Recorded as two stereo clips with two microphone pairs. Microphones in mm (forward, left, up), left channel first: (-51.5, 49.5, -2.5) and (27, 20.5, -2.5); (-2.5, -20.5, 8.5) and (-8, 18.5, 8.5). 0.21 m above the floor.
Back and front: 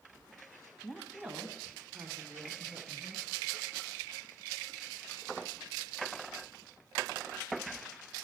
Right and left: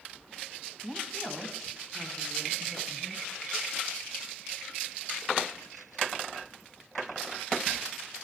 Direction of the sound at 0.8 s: 90° left.